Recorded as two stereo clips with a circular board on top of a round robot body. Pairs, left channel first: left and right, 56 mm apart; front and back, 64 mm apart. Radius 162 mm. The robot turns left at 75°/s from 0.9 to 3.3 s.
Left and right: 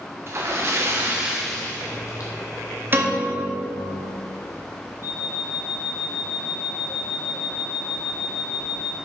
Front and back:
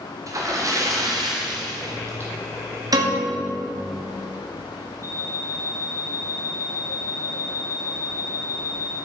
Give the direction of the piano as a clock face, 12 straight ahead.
5 o'clock.